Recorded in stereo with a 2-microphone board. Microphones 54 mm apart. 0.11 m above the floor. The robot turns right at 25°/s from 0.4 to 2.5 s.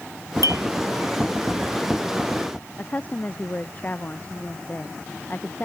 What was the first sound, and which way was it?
A clink, 75° right (ahead or behind).